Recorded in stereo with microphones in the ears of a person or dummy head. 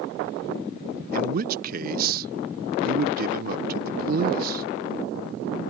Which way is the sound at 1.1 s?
55° right (ahead or behind).